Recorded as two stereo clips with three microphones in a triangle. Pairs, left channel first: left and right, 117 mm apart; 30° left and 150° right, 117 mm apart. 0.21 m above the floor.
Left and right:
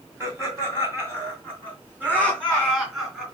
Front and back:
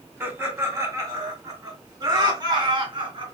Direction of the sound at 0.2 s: 115° right.